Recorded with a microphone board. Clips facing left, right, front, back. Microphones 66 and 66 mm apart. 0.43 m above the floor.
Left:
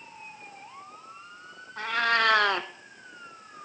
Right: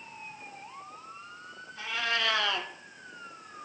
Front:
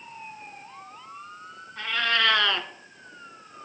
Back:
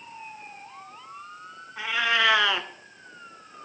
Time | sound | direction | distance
1.8 | a cat meowing | 105° left | 0.5 m